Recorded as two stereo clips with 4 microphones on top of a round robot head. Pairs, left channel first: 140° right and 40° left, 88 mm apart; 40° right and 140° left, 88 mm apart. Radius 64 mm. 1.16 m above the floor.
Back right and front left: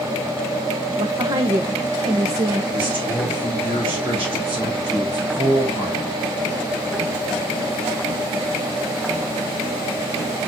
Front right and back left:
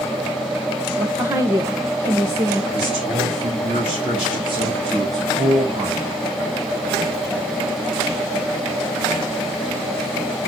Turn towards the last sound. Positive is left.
turn(degrees=110)